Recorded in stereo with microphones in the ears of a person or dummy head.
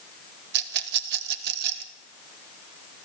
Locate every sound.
0.5 s a rattle: 60° right (ahead or behind), 1.9 m